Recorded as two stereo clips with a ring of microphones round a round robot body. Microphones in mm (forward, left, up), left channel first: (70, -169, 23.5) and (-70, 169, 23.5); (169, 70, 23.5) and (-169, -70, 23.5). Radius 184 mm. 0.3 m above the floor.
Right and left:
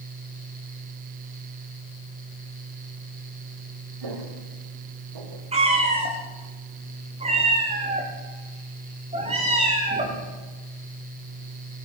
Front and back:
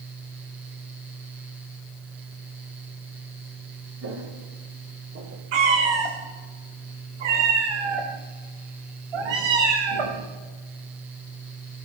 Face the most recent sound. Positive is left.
turn(degrees=-175)